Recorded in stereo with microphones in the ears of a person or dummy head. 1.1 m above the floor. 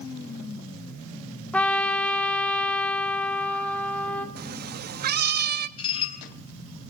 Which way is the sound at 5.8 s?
35° left (ahead or behind).